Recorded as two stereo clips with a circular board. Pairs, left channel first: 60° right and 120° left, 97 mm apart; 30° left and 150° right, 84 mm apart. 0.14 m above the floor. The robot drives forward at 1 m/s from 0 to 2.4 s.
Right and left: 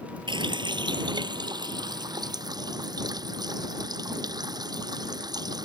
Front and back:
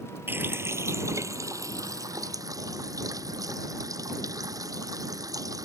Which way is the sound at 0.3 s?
150° left.